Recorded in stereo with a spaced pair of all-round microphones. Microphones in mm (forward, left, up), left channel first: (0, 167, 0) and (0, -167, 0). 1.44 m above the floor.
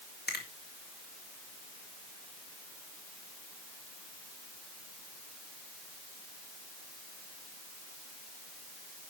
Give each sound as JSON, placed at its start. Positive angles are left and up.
{"t": 0.3, "sound": "a finger snap", "side_deg": 30, "distance_m": 2.0}